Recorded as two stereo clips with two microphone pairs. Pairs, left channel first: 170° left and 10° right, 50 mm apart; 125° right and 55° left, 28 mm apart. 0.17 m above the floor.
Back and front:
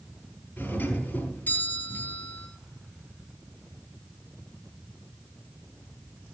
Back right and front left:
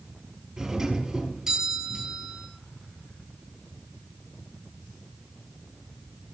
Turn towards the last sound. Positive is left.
turn(degrees=120)